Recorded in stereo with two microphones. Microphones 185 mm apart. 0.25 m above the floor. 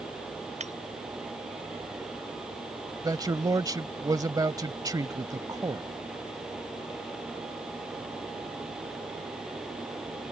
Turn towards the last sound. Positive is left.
turn(degrees=-20)  # may be behind; listen again after turning